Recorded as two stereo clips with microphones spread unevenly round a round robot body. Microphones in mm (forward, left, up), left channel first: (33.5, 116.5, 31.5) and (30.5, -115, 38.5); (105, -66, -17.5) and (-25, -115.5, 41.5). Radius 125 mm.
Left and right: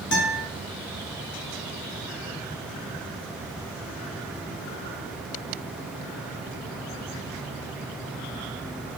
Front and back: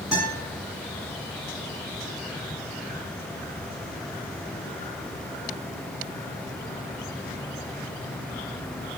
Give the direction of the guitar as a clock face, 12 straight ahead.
9 o'clock.